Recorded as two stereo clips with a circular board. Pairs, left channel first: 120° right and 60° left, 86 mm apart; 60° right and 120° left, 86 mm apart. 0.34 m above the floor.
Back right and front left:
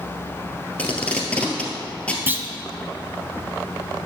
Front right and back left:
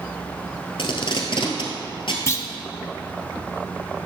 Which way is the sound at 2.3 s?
5° right.